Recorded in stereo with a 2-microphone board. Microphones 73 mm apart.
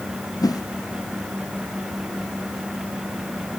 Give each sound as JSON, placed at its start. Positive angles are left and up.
{"t": 0.4, "sound": "a whoosh", "side_deg": 60, "distance_m": 1.0}